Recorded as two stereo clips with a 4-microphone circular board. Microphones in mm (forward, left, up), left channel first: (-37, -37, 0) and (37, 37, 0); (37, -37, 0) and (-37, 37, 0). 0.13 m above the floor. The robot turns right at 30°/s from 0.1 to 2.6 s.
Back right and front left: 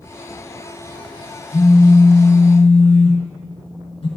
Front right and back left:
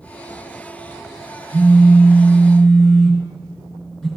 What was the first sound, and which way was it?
A phone buzzing, 160° right.